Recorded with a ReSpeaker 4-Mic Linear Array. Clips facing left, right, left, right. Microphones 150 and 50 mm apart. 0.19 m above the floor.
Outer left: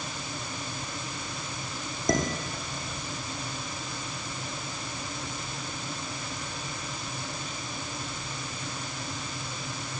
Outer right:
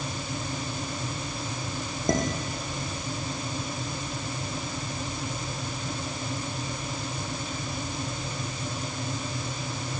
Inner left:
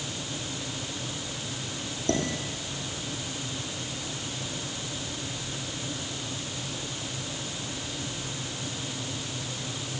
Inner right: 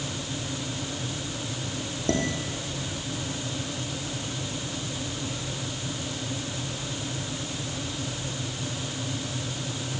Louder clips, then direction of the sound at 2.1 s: Outer right 1 dB, inner right 1 dB; 25° right (ahead or behind).